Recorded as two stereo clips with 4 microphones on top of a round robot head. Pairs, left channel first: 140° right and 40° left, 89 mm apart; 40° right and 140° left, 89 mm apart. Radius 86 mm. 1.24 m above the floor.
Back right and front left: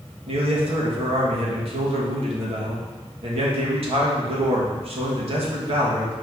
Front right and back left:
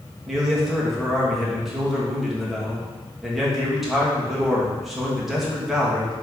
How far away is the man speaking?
About 2.0 m.